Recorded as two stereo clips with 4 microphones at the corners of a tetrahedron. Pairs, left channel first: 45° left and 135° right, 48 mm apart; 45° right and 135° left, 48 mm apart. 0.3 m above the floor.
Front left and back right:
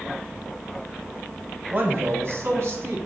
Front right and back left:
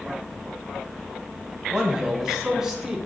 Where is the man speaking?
155° right, 1.7 m; by 3.0 s 140° right, 3 m.